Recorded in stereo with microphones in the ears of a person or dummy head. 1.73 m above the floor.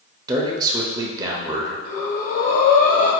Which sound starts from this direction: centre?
A man speaking, at 0.3 s.